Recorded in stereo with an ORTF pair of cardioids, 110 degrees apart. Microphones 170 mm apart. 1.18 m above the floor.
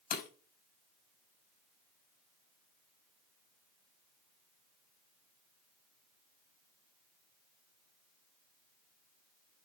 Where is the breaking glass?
60° left, 4.5 m.